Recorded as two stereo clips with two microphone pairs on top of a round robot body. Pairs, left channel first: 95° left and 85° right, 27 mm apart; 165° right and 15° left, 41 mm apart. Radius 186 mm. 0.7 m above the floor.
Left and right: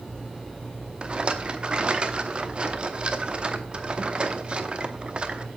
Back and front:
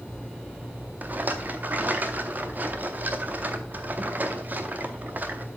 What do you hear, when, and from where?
1.0 s a rattle: 30° right, 0.9 m